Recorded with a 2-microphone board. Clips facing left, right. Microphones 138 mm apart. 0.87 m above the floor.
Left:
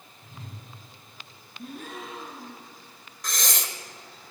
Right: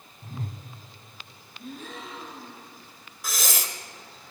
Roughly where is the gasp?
Left.